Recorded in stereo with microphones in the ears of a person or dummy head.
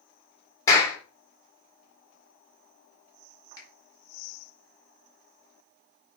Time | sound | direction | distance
0.7 | a clap | 25° left (ahead or behind) | 3.5 m
3.6 | a finger snap | 25° left (ahead or behind) | 4 m